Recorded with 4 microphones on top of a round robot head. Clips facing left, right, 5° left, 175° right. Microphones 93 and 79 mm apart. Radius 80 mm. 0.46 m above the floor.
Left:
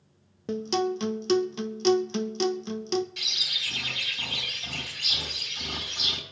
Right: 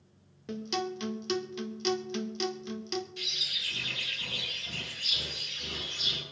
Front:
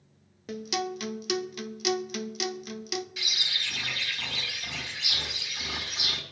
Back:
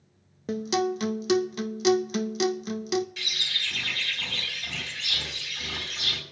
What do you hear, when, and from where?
0.5 s a guitar: 140° left, 0.7 m
3.2 s a bird: 85° left, 4.5 m